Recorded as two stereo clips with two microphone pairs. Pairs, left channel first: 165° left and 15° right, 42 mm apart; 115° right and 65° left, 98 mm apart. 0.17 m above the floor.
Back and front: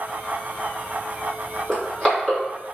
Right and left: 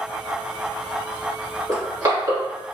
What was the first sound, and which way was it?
Crushing, 90° left.